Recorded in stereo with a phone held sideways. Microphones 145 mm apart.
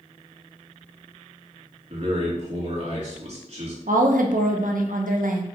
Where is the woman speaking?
80° right, 0.7 m.